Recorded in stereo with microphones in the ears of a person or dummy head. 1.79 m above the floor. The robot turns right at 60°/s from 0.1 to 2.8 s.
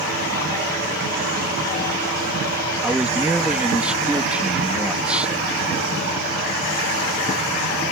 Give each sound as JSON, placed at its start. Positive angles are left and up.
{"t": 2.8, "sound": "a man speaking", "side_deg": -5}